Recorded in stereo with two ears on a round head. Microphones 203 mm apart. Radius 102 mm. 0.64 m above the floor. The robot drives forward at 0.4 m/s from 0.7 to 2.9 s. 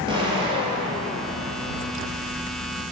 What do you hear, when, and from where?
0.1 s an explosion: 20° right (ahead or behind), 2.5 m